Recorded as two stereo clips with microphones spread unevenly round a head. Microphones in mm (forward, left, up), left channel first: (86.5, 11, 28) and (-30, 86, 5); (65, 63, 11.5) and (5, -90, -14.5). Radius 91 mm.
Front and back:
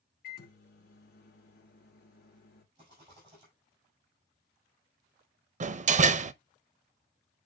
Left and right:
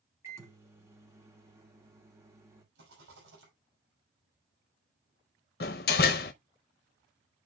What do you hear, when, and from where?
0.2 s a microwave: 35° right, 2.5 m
2.8 s a rattle: 150° right, 6 m
5.6 s a door slam: 110° left, 0.6 m